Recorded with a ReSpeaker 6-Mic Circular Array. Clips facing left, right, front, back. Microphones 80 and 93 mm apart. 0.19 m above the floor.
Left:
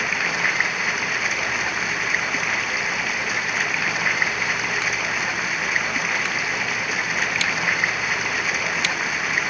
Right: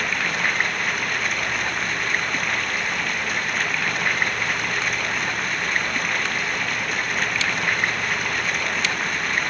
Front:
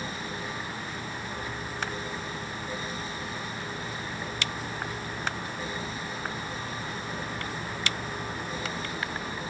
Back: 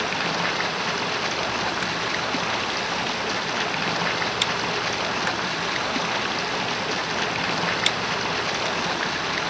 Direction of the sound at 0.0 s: 175° left.